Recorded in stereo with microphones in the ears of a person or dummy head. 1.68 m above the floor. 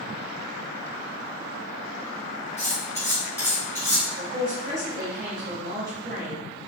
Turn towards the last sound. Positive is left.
turn(degrees=-45)  # may be behind; listen again after turning